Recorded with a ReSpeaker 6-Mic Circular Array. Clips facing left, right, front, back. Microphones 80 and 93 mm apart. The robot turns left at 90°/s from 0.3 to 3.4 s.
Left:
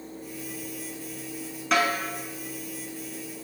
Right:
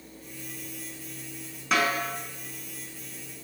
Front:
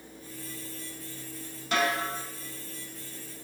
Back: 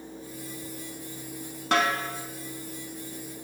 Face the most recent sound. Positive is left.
turn(degrees=30)